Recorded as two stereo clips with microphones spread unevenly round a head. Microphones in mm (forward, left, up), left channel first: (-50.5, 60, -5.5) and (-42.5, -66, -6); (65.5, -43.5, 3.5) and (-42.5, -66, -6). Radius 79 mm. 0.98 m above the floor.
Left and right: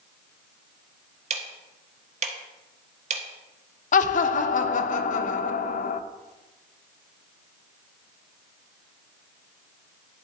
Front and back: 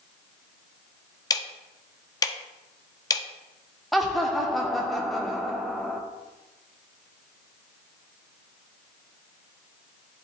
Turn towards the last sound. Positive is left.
turn(degrees=105)